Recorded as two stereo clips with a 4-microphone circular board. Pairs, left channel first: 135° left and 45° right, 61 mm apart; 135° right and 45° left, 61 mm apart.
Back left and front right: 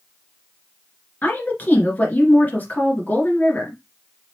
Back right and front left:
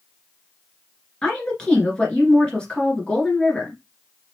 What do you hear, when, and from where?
1.2 s a woman speaking: 165° left, 1.8 m